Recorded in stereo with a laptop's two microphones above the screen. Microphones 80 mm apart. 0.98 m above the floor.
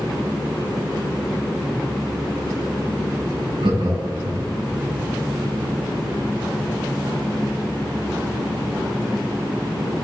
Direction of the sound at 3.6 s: 80° right.